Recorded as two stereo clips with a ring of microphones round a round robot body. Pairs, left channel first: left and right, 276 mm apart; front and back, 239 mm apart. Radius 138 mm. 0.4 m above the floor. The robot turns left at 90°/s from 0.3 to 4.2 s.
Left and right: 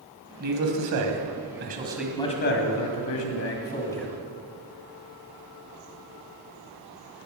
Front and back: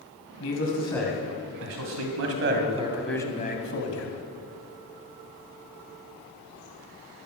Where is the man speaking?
30° right, 2 m; by 4.2 s 10° right, 2 m.